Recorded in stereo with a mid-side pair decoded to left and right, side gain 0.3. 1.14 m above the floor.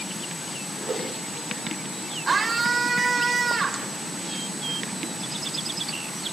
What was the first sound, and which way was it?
A whoosh, 55° right.